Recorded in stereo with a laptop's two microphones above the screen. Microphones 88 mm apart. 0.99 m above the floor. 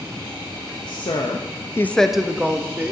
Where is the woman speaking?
60° left (ahead or behind), 1.0 m; by 2.9 s 20° right (ahead or behind), 1.5 m.